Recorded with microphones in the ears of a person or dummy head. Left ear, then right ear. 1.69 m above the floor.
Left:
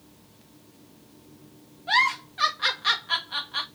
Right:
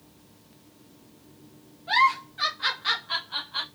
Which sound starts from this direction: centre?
A giggle, at 1.9 s.